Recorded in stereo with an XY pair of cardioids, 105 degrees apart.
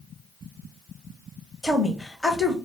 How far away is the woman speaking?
About 0.9 m.